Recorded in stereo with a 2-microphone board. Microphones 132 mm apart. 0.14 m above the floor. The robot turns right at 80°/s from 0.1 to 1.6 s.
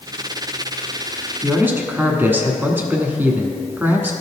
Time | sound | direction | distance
1.4 | a man speaking | 10° right (ahead or behind) | 1.1 m